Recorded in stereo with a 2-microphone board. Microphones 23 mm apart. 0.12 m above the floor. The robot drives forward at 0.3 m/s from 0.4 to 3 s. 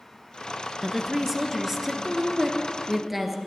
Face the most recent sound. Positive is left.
turn(degrees=-10)  # may be behind; listen again after turning